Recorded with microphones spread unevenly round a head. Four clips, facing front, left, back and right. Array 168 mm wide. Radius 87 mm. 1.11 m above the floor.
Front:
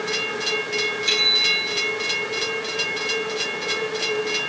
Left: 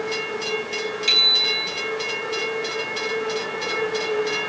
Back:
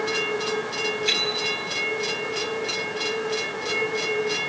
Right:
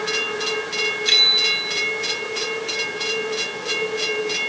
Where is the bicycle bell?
90° left, 7.5 m.